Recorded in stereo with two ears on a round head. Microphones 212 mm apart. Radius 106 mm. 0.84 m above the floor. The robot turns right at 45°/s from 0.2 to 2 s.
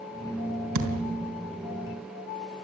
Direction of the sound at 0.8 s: 65° right (ahead or behind).